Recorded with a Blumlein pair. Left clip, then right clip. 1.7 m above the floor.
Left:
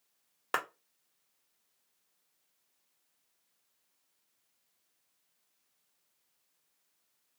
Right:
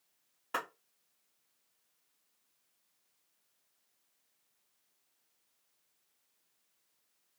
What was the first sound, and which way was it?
A clap, 40° left.